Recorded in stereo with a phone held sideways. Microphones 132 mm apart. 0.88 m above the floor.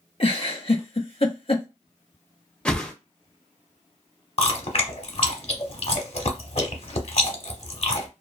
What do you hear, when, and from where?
0.2 s a giggle: 45° left (ahead or behind), 0.6 m
2.6 s a whoosh: 5° left (ahead or behind), 0.5 m
4.4 s chewing: 50° left (ahead or behind), 0.7 m